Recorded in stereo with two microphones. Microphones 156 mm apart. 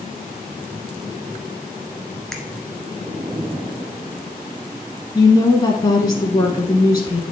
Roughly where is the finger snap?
Centre.